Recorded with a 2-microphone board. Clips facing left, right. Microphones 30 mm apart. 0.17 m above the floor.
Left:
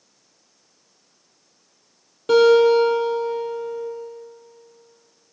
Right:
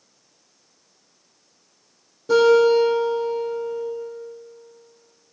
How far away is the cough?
No cough in this recording.